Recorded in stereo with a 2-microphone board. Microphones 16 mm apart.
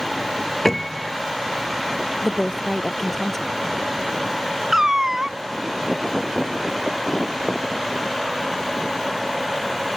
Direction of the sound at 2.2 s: 15° left (ahead or behind).